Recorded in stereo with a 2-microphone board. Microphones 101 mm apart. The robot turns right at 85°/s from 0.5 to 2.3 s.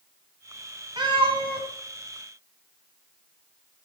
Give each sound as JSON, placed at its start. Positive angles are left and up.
{"t": 1.0, "sound": "a cat meowing", "azimuth_deg": -125, "distance_m": 1.6}